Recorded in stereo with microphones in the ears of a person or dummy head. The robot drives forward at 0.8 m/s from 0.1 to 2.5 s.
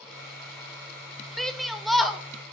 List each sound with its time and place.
1.4 s a shout: centre (ahead or behind), 0.7 m